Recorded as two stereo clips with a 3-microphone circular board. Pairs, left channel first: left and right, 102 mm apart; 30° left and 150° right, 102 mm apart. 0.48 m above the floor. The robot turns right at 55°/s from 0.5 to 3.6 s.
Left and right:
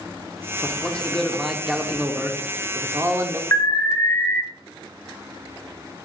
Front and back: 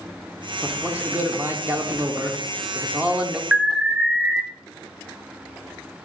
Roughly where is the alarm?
Behind left.